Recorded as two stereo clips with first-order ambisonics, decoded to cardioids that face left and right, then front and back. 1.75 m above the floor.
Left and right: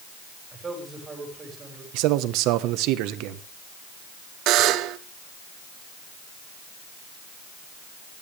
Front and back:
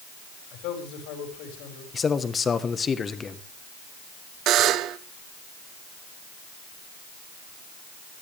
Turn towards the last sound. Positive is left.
turn(degrees=-130)